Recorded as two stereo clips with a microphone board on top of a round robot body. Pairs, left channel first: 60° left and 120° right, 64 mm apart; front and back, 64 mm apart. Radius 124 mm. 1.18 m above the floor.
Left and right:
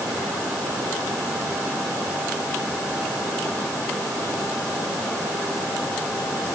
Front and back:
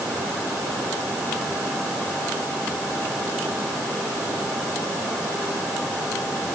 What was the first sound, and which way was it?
Only background noise.